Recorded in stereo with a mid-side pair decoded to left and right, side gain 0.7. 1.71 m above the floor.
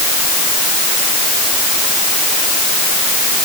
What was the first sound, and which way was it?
Only background noise.